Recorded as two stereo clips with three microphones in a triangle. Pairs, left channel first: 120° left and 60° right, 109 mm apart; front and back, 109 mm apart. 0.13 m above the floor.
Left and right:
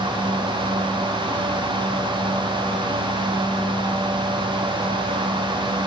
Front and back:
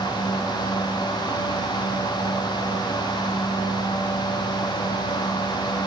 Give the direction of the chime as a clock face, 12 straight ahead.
I don't hear a chime.